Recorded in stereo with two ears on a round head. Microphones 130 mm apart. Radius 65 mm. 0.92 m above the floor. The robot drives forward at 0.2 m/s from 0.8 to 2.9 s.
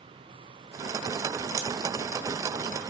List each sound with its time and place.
1.6 s scissors: 25° right (ahead or behind), 0.5 m